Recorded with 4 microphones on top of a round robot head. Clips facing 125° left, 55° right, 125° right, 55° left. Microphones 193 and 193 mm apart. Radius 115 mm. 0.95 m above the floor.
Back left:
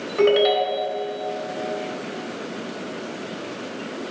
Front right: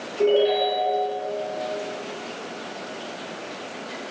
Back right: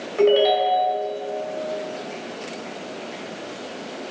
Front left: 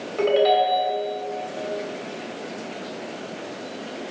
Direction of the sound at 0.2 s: 150° left.